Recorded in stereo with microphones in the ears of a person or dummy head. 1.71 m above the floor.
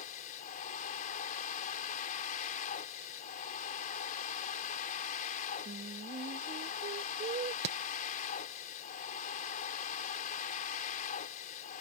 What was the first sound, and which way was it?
A machine running, 40° left (ahead or behind).